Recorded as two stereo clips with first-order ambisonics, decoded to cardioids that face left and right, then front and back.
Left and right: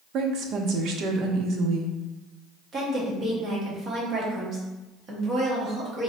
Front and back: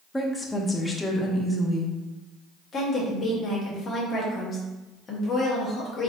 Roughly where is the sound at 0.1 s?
Right.